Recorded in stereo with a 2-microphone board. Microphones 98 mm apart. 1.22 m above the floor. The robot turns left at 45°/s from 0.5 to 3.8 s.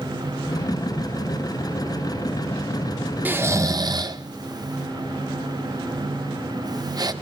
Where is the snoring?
15° right (ahead or behind), 0.7 m; by 7.1 s 40° right (ahead or behind), 0.7 m.